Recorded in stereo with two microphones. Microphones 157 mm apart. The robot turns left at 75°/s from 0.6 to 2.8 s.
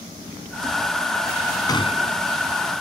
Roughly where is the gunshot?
Behind left.